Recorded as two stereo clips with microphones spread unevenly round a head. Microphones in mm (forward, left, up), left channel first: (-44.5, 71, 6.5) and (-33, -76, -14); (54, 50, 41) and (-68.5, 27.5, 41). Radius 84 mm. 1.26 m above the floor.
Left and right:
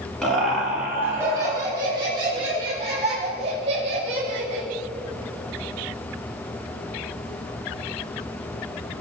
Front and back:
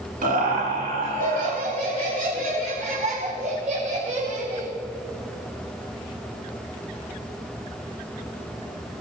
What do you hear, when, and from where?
0.2 s laughter: straight behind, 2.5 m; by 4.7 s 130° right, 7.5 m